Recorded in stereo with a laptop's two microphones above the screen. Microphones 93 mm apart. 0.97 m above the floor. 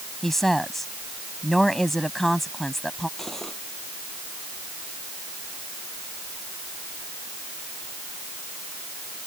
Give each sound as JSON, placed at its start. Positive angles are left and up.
{"t": 0.2, "sound": "a woman speaking", "side_deg": 5}
{"t": 3.2, "sound": "cutlery clinking", "side_deg": 5}